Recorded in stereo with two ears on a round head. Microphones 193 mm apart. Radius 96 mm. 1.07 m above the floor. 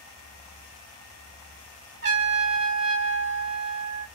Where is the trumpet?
50° right (ahead or behind), 1.6 m.